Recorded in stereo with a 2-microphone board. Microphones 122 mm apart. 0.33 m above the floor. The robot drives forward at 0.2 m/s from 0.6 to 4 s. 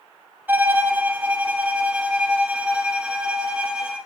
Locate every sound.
0.5 s a violin: 15° right (ahead or behind), 0.7 m; by 4.0 s 10° right (ahead or behind), 1.4 m